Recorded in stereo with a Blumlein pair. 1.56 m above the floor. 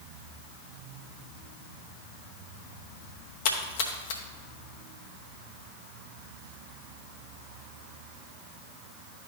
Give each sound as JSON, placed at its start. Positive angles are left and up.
{"t": 3.5, "sound": "a splash", "azimuth_deg": 50, "distance_m": 0.8}